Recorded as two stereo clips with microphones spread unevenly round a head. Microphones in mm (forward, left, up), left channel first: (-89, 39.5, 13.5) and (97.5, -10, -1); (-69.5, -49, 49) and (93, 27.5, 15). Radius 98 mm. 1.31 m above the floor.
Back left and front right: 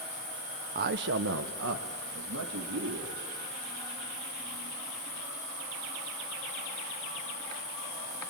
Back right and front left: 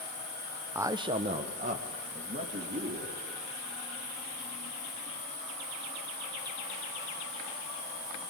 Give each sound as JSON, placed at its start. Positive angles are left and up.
{"t": 0.8, "sound": "a man speaking", "azimuth_deg": -40, "distance_m": 0.8}